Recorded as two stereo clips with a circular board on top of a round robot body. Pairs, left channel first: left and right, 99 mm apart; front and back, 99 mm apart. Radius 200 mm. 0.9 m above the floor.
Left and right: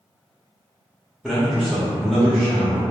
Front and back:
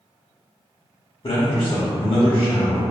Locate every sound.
1.2 s a man speaking: 10° right, 1.5 m